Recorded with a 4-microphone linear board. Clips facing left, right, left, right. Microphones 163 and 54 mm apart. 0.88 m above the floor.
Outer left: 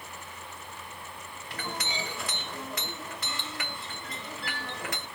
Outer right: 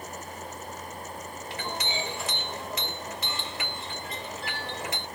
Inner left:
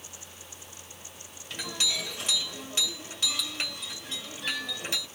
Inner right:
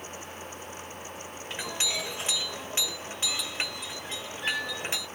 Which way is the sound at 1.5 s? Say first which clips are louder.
Outer right 2 dB, even; 25° right (ahead or behind).